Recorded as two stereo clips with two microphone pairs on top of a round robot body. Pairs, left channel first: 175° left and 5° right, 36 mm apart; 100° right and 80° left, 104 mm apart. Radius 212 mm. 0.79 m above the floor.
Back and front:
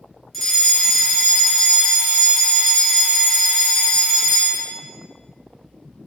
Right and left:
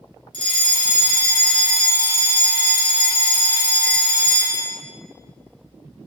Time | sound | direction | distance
0.3 | a fire alarm | 100° right | 2.5 m